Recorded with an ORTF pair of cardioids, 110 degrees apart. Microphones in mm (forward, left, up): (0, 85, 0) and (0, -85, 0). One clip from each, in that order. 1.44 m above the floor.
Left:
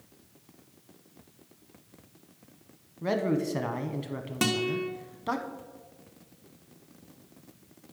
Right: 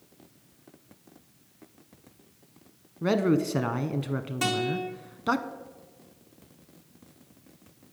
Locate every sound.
3.0 s a man speaking: 20° right, 0.8 m
4.4 s a guitar: 45° left, 1.2 m